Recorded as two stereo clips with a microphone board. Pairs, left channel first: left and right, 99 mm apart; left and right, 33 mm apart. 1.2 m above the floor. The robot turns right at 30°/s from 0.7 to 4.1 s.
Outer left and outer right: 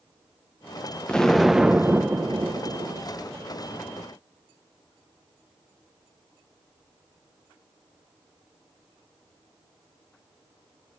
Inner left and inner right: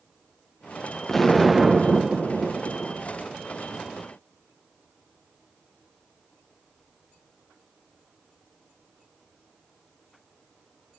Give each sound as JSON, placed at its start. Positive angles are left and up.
{"t": 1.1, "sound": "an explosion", "azimuth_deg": 170, "distance_m": 0.9}